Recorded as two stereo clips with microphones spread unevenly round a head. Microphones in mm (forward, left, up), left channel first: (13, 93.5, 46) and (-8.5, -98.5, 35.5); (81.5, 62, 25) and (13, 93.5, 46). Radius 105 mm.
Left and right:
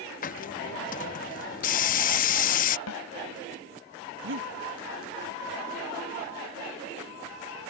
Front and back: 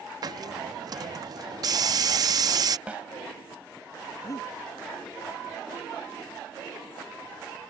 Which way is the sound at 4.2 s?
75° right.